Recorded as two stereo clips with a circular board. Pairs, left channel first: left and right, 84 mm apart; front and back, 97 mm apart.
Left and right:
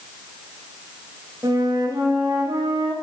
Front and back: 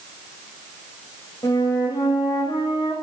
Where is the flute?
45° right, 9 m.